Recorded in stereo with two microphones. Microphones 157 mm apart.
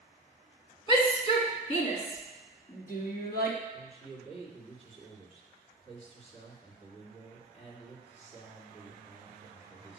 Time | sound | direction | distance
0.9 | a shout | 30° left (ahead or behind) | 1.2 m
3.7 | a man speaking | 40° left (ahead or behind) | 2 m